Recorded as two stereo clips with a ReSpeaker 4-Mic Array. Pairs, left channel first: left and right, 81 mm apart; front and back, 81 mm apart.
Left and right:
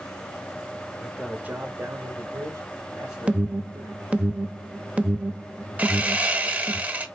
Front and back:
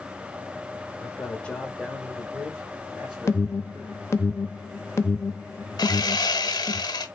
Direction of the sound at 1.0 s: 5° left.